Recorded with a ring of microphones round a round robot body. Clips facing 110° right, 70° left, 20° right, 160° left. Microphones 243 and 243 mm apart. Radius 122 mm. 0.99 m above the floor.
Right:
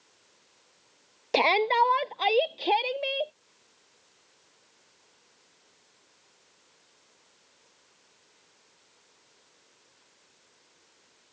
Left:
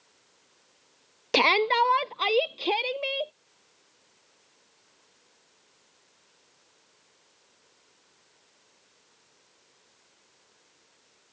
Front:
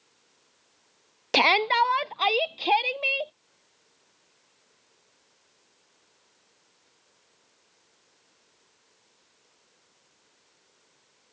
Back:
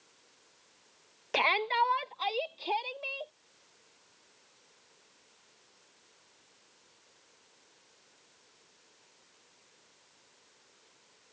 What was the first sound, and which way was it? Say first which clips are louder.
A shout: even, front 7 dB; straight ahead.